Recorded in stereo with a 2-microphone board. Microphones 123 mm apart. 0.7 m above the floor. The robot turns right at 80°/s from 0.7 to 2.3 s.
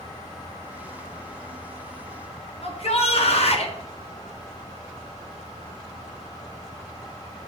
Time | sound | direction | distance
2.6 | a shout | 55° left (ahead or behind) | 1.1 m